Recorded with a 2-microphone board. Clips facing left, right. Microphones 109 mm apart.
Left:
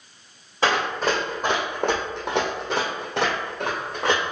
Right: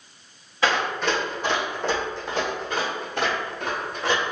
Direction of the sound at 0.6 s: 30° left (ahead or behind).